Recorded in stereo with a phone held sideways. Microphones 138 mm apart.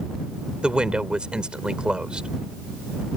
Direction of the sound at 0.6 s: 5° right (ahead or behind).